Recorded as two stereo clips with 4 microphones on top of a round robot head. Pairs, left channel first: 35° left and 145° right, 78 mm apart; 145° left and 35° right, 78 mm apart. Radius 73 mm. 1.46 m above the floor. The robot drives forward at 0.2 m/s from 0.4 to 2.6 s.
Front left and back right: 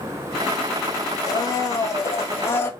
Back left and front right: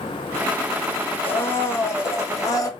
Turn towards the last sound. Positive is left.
turn(degrees=100)